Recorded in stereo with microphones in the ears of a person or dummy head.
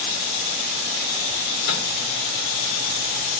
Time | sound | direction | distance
1.7 | a microwave | 85° left | 2.5 m